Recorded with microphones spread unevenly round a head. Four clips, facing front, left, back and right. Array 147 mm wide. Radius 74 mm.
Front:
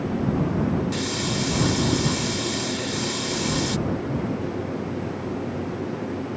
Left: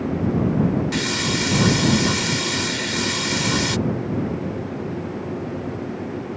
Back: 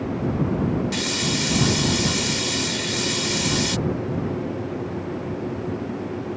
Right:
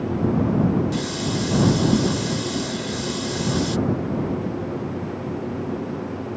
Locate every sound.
0.9 s a hiss: 90° left